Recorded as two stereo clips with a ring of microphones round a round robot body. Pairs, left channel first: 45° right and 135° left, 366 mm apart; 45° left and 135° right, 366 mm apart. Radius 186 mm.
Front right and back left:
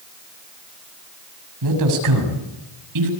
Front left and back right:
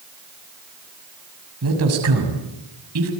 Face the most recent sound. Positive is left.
turn(degrees=175)